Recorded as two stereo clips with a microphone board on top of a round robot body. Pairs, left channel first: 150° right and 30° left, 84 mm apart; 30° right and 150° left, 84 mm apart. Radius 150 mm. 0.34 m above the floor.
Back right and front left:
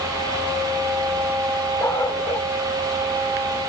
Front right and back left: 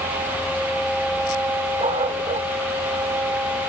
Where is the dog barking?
150° left.